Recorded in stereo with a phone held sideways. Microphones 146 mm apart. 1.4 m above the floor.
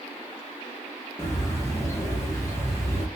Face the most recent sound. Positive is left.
turn(degrees=20)  # may be behind; listen again after turning